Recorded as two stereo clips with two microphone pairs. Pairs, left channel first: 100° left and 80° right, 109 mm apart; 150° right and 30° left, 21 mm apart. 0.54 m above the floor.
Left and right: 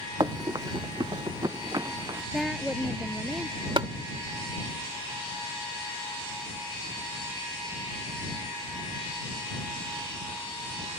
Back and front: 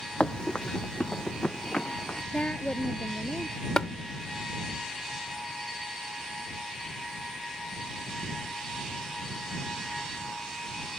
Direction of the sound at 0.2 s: 120° right.